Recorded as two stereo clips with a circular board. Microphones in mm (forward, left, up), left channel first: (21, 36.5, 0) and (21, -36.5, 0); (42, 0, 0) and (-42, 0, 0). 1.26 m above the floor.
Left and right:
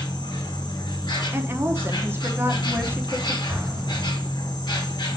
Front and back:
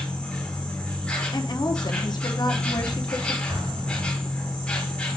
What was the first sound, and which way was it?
An insect, 75° left.